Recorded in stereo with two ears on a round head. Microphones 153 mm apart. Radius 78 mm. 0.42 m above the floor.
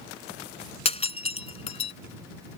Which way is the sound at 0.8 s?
40° left (ahead or behind).